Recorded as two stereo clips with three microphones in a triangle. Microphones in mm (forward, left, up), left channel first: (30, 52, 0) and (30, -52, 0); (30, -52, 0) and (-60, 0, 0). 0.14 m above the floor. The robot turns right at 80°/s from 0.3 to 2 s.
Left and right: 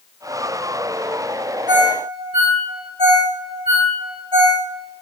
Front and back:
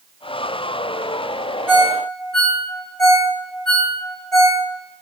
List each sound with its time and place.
1.7 s a ringtone: 140° right, 3.5 m; by 4.6 s 115° right, 3.5 m